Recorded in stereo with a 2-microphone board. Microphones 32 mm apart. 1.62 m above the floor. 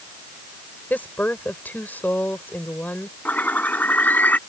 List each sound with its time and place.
0.9 s a woman speaking: 65° left (ahead or behind)
3.2 s a bird: 65° left (ahead or behind)